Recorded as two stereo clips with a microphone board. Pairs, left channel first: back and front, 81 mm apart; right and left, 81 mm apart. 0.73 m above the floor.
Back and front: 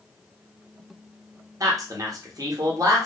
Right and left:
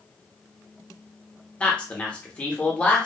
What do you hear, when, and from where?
1.6 s a man speaking: 20° right, 0.8 m